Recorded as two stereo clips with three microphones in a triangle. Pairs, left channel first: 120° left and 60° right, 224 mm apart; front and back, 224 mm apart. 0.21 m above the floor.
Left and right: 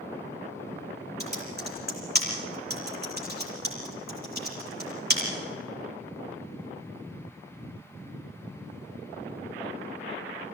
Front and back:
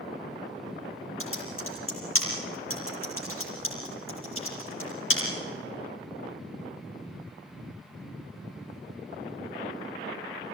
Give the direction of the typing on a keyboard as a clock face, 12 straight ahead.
1 o'clock.